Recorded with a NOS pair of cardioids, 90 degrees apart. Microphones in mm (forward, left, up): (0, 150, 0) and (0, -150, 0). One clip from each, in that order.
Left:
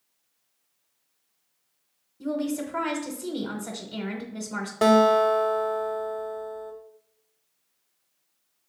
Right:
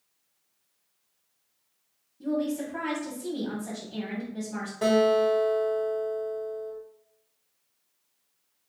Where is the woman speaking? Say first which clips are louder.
Even; 25° left, 0.8 m.